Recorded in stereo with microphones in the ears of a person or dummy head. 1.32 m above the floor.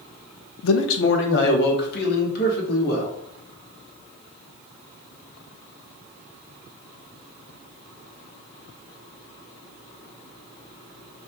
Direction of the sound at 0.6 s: 80° left.